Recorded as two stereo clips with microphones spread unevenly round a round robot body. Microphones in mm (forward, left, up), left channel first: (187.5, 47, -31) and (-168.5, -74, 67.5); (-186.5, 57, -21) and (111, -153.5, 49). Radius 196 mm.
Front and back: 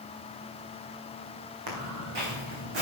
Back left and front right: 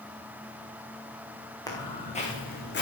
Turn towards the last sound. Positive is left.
turn(degrees=-155)